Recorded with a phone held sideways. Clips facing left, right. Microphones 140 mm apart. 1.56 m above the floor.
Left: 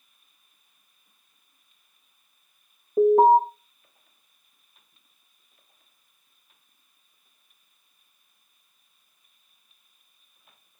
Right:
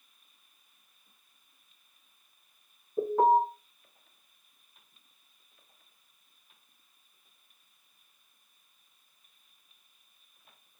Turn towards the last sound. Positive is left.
turn(degrees=80)